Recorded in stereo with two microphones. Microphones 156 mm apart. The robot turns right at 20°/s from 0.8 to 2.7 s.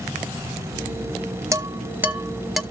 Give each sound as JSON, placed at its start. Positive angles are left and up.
{"t": 1.5, "sound": "dishes clattering", "side_deg": -20, "distance_m": 0.6}